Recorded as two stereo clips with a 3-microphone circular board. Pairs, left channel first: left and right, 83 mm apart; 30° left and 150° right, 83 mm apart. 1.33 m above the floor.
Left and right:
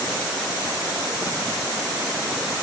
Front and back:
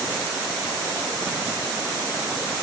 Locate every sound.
Only background noise.